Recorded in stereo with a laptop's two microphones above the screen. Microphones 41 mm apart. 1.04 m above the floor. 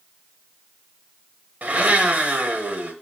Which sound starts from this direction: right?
A blender, at 1.6 s.